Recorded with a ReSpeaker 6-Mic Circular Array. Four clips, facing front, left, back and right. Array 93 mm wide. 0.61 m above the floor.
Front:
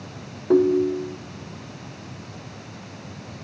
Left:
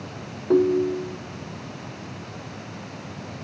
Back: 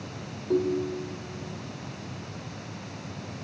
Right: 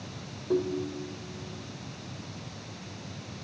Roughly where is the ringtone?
Ahead left.